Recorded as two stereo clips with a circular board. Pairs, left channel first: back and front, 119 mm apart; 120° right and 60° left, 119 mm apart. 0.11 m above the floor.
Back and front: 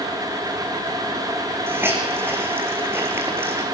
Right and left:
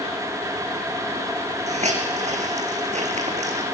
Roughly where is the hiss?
Left.